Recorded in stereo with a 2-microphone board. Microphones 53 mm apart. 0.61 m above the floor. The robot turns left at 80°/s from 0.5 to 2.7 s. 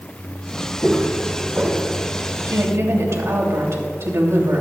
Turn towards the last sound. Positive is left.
turn(degrees=-60)  # may be behind; listen again after turning